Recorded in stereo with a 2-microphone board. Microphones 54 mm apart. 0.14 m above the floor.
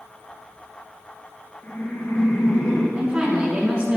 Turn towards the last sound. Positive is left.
turn(degrees=-25)  # may be behind; listen again after turning